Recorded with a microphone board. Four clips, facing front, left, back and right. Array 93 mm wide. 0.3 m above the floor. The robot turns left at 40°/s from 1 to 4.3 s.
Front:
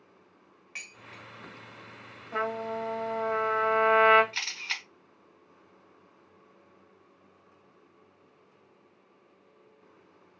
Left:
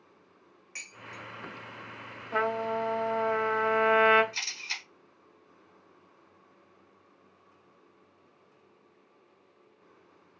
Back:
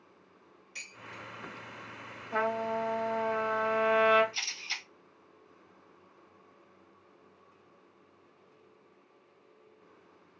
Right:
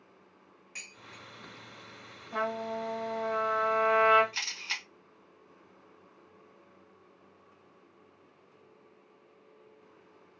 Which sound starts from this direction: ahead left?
Dishes clattering, at 0.8 s.